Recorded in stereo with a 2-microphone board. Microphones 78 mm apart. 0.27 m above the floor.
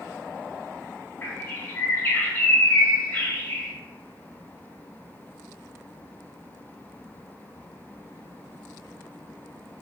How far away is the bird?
About 0.9 m.